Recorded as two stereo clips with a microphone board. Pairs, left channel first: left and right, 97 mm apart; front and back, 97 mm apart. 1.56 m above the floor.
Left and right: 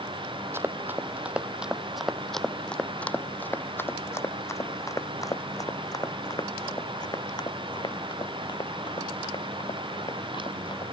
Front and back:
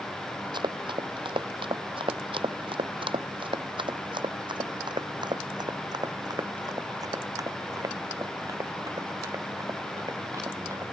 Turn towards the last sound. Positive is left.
turn(degrees=120)